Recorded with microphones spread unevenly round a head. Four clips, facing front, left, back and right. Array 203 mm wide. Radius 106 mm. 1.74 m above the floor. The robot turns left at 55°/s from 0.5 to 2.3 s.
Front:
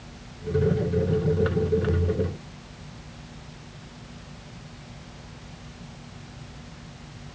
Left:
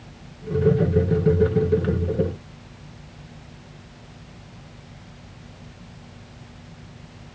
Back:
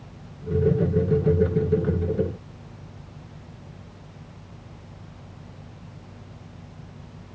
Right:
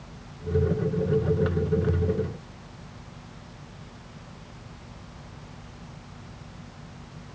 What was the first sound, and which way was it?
Only background noise.